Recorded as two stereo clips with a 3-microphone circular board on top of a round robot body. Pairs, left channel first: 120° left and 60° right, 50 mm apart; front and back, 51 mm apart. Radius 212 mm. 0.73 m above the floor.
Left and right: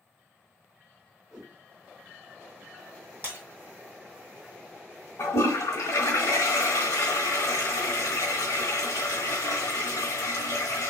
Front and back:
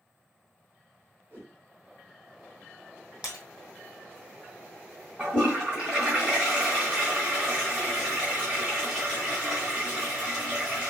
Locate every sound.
1.3 s a whoosh: 130° right, 1.3 m
3.2 s breaking glass: 105° right, 2 m
5.2 s a toilet flushing: 110° left, 1.0 m